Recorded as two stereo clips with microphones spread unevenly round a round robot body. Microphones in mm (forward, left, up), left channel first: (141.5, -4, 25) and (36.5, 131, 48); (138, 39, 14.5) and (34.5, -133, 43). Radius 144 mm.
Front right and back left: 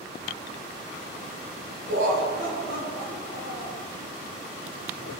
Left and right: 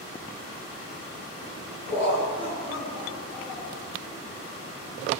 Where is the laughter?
170° left, 7 m.